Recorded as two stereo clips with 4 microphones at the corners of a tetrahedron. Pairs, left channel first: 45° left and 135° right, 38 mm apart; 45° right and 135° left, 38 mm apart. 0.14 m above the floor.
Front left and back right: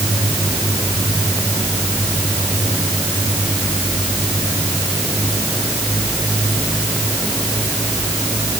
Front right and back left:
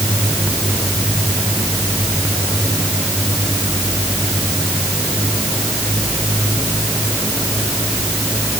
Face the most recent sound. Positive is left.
No sound to turn to.